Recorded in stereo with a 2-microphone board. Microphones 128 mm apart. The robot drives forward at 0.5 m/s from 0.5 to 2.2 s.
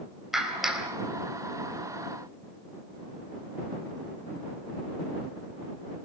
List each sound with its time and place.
0.3 s a clap: 5° right (ahead or behind), 4 m